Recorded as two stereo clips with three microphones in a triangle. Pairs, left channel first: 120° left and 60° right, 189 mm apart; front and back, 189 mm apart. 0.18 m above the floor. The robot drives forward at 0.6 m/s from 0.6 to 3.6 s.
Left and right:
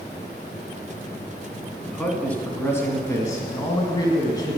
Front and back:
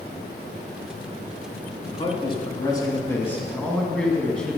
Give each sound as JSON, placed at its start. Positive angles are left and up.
{"t": 1.9, "sound": "a man speaking", "azimuth_deg": 35, "distance_m": 2.0}